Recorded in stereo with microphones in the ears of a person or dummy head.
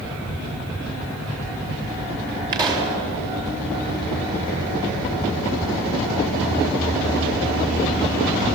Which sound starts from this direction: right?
A pop, at 2.5 s.